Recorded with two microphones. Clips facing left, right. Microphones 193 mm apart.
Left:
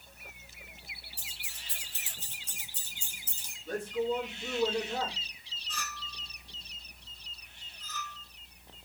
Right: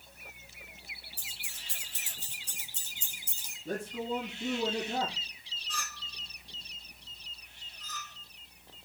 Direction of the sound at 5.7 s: Centre (ahead or behind).